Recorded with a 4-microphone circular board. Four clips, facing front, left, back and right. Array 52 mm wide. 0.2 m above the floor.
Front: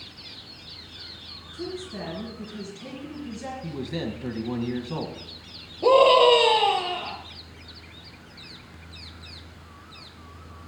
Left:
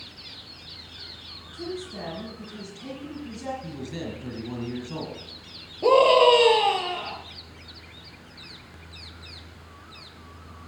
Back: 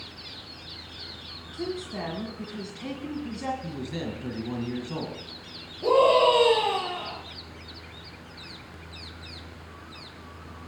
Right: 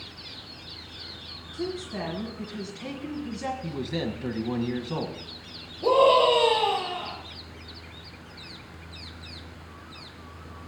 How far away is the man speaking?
About 1.3 m.